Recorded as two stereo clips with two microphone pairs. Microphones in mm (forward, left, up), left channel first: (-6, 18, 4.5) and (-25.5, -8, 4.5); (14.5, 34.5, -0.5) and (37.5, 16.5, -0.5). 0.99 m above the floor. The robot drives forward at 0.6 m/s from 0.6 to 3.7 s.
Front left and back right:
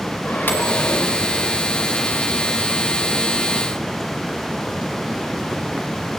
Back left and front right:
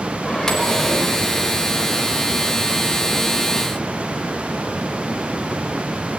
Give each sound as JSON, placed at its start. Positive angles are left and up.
{"t": 0.2, "sound": "a microwave", "azimuth_deg": 65, "distance_m": 4.0}